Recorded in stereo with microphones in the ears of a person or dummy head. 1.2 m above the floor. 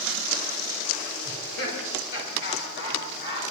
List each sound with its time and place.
1.2 s laughter: 75° left (ahead or behind), 4 m; by 3.4 s 65° left (ahead or behind), 6 m